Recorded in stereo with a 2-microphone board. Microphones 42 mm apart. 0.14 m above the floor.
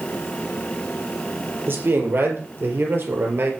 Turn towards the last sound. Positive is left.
turn(degrees=-65)  # may be behind; listen again after turning